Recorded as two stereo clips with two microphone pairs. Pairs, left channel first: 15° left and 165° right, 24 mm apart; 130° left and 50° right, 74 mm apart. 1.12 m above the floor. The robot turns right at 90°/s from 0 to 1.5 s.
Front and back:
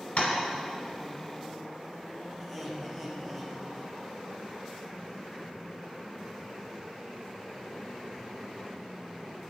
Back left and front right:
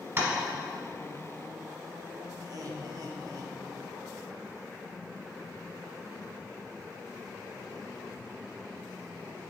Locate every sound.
0.2 s tapping: 5° right, 1.5 m; by 0.3 s 5° left, 1.5 m
2.4 s laughter: 70° right, 1.0 m